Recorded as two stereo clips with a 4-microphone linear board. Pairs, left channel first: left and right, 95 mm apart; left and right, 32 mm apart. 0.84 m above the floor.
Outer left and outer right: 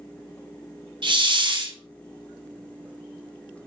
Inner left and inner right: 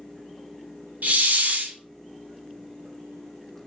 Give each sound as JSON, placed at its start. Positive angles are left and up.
{"t": 1.0, "sound": "a hiss", "side_deg": -55, "distance_m": 0.5}